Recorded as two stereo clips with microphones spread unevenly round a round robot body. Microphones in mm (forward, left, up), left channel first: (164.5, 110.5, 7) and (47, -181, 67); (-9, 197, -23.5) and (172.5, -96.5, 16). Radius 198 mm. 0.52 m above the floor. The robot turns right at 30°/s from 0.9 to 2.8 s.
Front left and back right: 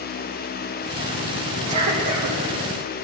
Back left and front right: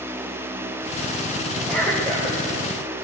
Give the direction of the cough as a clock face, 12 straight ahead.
5 o'clock.